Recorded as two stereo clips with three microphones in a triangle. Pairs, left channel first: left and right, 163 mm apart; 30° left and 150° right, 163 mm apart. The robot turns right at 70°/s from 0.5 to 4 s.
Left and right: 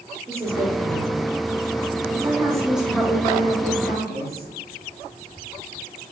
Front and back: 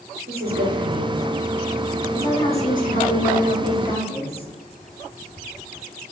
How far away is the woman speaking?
About 0.9 m.